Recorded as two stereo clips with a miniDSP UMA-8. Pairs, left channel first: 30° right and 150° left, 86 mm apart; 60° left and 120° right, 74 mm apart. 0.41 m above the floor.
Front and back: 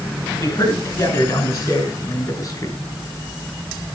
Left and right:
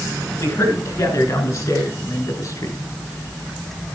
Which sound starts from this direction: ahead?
A man speaking, at 0.4 s.